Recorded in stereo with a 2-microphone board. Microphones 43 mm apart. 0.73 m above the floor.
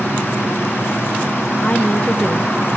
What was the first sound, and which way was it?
A woman speaking, 30° left (ahead or behind).